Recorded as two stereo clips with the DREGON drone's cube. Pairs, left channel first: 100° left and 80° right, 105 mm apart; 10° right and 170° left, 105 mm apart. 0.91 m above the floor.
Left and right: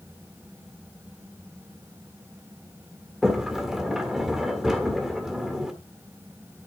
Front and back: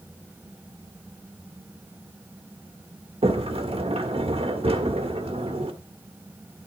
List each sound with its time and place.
3.2 s a sliding door: 165° right, 1.5 m